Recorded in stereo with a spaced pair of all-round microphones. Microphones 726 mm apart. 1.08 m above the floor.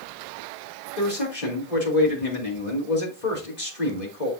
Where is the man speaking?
75° left (ahead or behind), 3.5 m.